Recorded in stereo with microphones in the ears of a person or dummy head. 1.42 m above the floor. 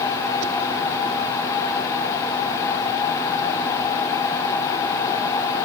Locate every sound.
Only background noise.